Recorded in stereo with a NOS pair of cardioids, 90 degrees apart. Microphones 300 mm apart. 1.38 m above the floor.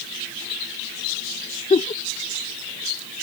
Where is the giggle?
20° left.